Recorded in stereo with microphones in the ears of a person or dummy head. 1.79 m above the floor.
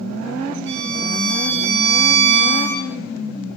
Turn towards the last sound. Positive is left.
turn(degrees=-70)  # may be behind; listen again after turning